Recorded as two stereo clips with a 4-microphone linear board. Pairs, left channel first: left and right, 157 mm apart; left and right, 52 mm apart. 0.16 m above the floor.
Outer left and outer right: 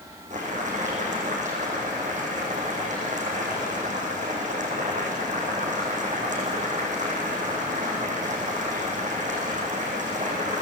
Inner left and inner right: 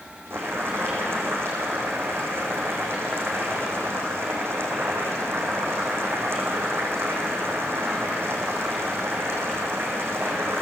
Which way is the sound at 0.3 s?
50° right (ahead or behind).